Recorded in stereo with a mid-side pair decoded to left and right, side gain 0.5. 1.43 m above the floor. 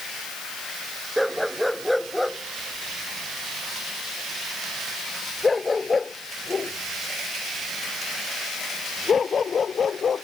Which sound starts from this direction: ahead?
A dog barking, at 1.2 s.